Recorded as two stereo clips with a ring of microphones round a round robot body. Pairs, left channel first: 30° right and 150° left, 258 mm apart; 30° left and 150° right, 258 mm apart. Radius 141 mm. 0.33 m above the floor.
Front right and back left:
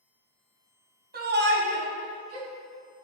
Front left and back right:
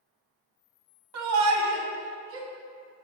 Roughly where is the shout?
Behind.